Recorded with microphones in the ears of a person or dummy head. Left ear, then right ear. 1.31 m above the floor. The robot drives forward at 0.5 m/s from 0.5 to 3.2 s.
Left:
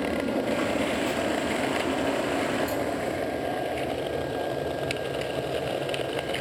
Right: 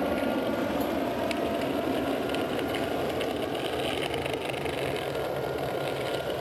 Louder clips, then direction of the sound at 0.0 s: Even; 40° right (ahead or behind).